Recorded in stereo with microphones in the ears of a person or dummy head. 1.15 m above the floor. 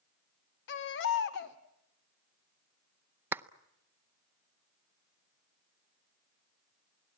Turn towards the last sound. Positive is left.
turn(degrees=-10)  # may be behind; listen again after turning